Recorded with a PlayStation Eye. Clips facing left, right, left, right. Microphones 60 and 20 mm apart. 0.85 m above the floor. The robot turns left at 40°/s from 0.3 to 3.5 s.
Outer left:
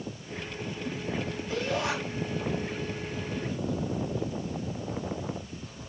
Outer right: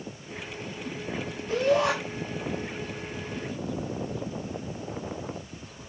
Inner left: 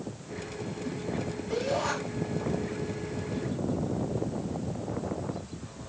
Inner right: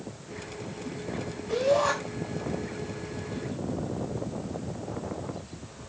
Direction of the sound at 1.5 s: 65° right (ahead or behind).